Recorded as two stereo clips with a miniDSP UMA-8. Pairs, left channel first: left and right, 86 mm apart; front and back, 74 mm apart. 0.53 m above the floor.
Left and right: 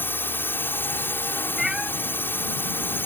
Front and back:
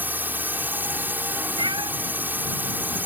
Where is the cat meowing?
175° right.